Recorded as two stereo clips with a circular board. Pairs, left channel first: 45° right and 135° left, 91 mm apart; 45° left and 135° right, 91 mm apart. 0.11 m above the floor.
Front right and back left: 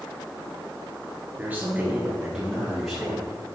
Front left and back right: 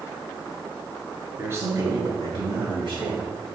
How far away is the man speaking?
About 1.3 m.